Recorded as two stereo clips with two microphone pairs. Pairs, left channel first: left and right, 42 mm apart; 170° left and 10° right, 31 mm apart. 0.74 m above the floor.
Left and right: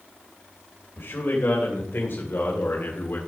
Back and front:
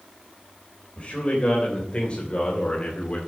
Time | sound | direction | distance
1.0 | a man speaking | 120° left | 3 m